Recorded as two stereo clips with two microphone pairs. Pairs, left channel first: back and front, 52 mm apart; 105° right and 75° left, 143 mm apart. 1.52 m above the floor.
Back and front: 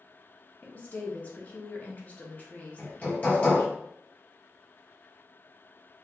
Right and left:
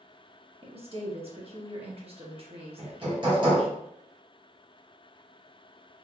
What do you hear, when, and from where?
0.6 s a woman speaking: 120° left, 1.1 m
2.8 s hammering: 120° left, 1.4 m